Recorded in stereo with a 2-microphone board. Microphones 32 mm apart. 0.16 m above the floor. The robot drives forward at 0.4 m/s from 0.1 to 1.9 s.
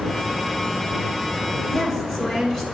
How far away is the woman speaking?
About 1.5 m.